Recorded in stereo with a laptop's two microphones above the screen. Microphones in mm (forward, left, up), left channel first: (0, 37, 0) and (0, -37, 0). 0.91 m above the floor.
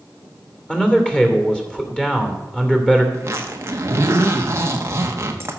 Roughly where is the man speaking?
Centre.